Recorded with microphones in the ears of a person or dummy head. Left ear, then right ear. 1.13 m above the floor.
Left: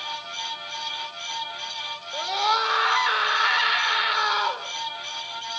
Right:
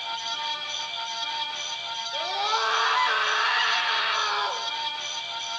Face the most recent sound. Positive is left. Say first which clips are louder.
# left 4 dB
turn(degrees=30)  # may be behind; listen again after turning